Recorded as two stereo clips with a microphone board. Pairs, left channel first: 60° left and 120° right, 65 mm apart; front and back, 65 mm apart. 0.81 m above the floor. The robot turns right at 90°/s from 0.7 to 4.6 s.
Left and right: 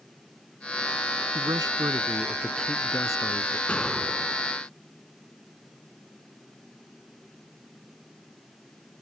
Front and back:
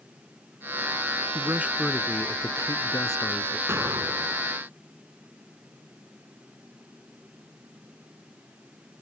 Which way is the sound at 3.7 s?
130° left.